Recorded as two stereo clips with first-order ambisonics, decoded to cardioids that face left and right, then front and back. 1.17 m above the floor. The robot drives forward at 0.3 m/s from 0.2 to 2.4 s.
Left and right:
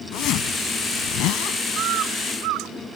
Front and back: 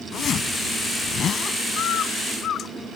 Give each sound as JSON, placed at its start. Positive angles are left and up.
{"t": 0.1, "sound": "a zipper", "azimuth_deg": 55}
{"t": 1.8, "sound": "a bird", "azimuth_deg": -45}